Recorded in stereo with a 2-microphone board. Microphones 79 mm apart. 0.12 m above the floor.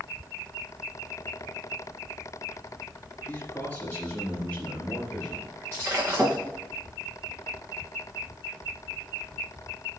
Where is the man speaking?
20° left (ahead or behind), 2.5 m; by 5.5 s 15° left (ahead or behind), 4.5 m.